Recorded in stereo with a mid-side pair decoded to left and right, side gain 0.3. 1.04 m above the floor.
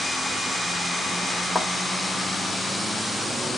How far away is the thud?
About 1.7 m.